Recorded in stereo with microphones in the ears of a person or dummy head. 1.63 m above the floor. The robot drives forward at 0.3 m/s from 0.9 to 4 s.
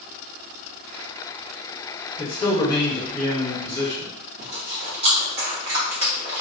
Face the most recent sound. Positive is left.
turn(degrees=-30)  # may be behind; listen again after turning